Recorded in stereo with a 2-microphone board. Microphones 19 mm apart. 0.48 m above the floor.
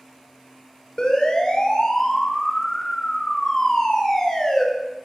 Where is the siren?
40° left (ahead or behind), 6 m; by 4.7 s 25° left (ahead or behind), 4.5 m.